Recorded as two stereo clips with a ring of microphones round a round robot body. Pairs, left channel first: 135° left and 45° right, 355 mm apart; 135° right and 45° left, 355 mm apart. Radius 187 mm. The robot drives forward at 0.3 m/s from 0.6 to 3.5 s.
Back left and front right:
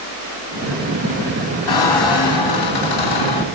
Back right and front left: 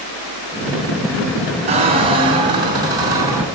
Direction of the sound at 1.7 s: 120° left.